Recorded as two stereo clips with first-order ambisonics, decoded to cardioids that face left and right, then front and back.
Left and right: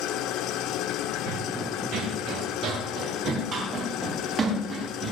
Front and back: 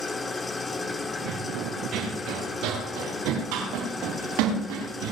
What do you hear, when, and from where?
0.0 s an engine running: 70° left, 0.8 m
1.3 s running footsteps: 120° right, 4.5 m; by 5.1 s 160° right, 8 m